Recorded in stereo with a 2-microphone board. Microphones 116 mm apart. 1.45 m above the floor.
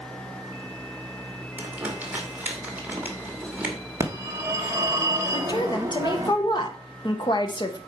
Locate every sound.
1.6 s crumpling: 15° right (ahead or behind), 2 m
4.0 s a phone ringing: 25° right (ahead or behind), 1.4 m
5.3 s a woman speaking: 40° left (ahead or behind), 1.3 m